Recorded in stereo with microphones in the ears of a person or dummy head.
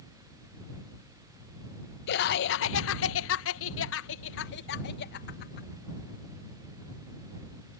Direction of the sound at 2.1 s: 65° left (ahead or behind).